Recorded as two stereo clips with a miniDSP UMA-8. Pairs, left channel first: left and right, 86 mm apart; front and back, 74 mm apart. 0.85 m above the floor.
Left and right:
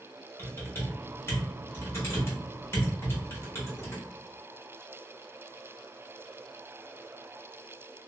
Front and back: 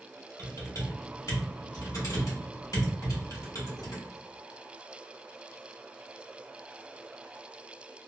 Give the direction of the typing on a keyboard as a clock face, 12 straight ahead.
11 o'clock.